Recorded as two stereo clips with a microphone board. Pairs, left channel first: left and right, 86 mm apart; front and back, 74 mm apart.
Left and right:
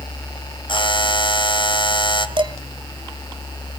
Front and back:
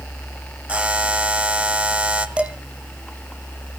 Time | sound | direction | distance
0.7 | a buzzer | 110° left | 1.5 m
2.4 | dishes clattering | 105° right | 1.6 m